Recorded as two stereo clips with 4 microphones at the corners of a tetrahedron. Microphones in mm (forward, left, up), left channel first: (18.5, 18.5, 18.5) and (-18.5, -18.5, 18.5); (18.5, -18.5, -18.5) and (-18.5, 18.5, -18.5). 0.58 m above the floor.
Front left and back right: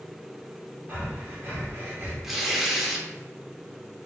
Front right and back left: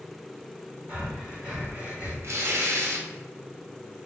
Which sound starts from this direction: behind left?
Tearing paper, at 2.2 s.